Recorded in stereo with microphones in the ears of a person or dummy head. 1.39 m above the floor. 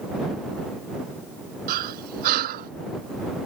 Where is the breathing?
50° right (ahead or behind).